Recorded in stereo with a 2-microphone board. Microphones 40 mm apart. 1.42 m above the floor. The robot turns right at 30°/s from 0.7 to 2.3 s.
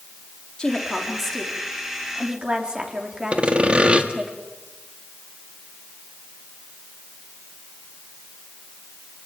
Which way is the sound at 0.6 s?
155° left.